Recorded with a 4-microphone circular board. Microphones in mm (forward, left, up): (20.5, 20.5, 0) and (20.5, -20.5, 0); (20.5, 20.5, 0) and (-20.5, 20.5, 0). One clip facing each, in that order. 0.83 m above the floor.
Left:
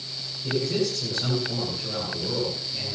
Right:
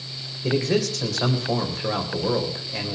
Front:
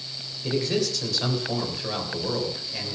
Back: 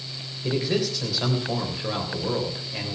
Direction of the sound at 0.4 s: 100° right.